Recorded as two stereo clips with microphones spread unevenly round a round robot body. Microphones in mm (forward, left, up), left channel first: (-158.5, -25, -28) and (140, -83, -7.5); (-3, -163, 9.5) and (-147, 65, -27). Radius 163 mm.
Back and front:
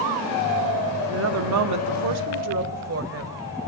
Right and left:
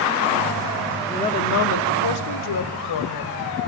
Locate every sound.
1.1 s a woman speaking: 30° left, 0.9 m; by 3.4 s 55° right, 3 m